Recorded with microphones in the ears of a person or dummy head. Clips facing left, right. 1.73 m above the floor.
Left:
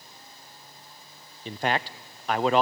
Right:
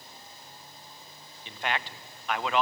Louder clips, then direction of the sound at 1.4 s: Left 6 dB; 35° left (ahead or behind).